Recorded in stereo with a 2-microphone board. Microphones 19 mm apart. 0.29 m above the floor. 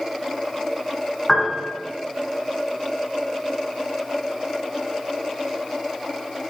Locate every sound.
1.3 s a piano: 20° left (ahead or behind), 1.7 m